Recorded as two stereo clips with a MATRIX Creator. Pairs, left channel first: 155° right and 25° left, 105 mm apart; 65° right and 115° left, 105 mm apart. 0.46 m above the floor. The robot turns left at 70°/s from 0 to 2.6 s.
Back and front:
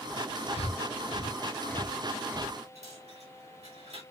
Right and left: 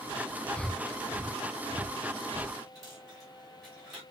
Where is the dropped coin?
25° left, 6 m.